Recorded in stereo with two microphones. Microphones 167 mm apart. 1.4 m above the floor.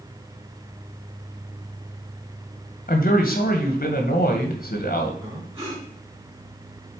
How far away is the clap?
No clap in this recording.